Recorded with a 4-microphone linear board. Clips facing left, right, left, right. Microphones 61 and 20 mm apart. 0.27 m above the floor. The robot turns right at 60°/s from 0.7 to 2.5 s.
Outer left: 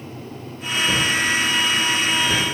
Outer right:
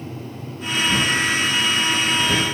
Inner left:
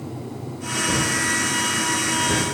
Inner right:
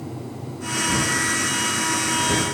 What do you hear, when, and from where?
0.9 s a drawer: 50° left (ahead or behind), 3.5 m; by 2.5 s 45° right (ahead or behind), 3.5 m